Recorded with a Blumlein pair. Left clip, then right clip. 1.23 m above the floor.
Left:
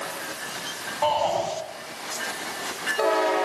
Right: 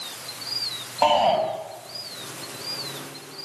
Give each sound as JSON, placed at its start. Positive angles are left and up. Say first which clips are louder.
{"t": 1.0, "sound": "a shout", "louder": "right 4 dB", "azimuth_deg": -60, "distance_m": 7.0}